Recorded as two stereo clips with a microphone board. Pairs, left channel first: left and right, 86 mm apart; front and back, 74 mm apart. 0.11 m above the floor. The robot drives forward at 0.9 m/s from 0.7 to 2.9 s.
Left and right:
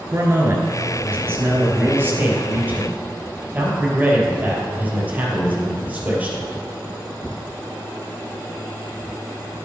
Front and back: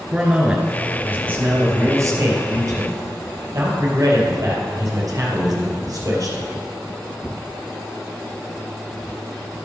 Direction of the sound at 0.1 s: 115° right.